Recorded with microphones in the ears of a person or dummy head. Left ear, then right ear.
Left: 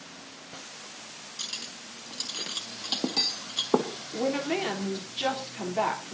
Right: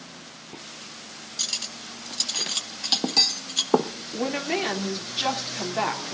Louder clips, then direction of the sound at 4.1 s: Right 1 dB; 15° right (ahead or behind).